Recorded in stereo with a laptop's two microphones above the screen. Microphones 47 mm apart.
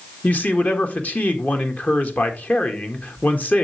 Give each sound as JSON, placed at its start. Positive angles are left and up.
{"t": 0.2, "sound": "a man speaking", "side_deg": 35, "distance_m": 1.6}